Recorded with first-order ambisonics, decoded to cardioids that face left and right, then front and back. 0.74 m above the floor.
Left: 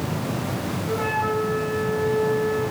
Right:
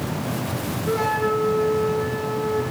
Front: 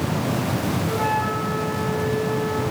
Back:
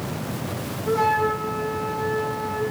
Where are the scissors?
I don't hear scissors.